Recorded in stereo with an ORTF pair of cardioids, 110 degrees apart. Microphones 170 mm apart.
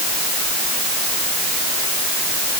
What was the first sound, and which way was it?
Only background noise.